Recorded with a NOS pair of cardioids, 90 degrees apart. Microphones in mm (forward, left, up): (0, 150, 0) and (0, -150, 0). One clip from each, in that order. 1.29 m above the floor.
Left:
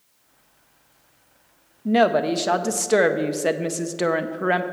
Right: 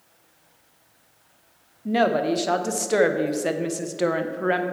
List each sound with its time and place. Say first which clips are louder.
1.9 s a woman speaking: left 3 dB; 15° left, 0.6 m